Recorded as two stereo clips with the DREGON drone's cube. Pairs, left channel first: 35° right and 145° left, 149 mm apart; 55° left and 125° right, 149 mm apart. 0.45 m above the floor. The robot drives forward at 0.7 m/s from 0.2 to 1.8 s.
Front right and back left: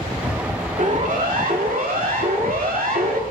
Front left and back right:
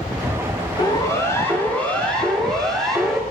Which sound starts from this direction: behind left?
A siren, at 0.8 s.